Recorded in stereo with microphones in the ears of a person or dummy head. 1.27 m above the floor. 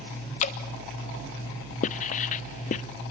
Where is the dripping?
30° left (ahead or behind), 1.3 m.